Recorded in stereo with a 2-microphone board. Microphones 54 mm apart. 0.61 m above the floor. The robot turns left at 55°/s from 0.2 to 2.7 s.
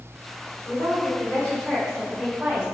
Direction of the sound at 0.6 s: 70° left.